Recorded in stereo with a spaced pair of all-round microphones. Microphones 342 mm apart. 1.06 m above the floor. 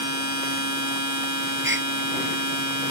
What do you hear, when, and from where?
0.0 s a machine running: 60° right (ahead or behind)
1.6 s a gasp: 35° right (ahead or behind)